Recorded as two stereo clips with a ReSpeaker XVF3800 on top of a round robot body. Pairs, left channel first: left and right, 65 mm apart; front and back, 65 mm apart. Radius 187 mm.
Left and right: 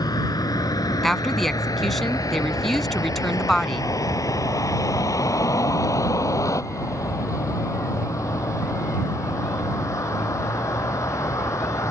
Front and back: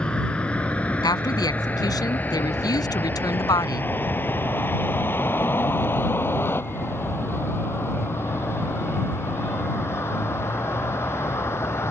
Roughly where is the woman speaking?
Ahead.